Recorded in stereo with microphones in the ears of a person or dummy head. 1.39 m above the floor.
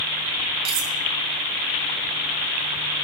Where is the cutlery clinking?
30° right (ahead or behind), 0.6 m.